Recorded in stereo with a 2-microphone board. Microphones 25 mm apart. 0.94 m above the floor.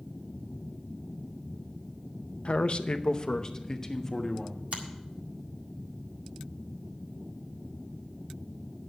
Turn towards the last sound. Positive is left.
turn(degrees=-80)